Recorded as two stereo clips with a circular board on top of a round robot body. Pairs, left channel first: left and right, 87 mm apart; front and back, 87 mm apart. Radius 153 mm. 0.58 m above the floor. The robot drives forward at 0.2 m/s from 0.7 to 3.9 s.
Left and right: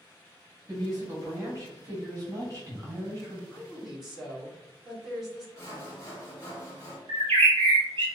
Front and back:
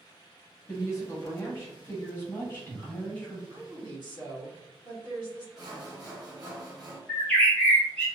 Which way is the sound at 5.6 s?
145° left.